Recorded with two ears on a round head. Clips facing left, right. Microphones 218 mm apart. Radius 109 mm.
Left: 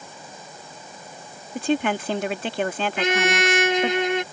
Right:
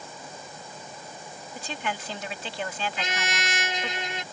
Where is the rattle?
I don't hear a rattle.